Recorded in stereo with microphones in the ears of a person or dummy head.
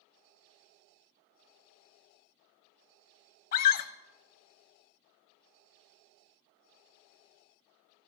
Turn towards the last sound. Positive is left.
turn(degrees=50)  # may be behind; listen again after turning